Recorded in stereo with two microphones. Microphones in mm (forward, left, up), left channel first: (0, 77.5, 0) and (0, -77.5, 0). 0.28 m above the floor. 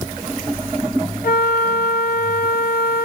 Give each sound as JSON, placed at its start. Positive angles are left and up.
{"t": 1.2, "sound": "a flute", "side_deg": 80, "distance_m": 0.9}